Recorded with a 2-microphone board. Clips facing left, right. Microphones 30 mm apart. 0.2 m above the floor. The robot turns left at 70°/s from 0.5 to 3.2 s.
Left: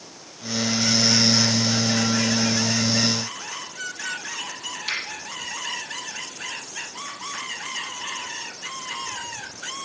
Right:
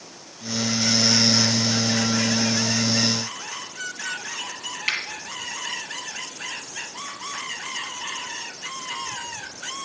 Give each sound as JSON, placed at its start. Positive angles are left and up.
{"t": 4.9, "sound": "a finger snap", "side_deg": -65, "distance_m": 5.0}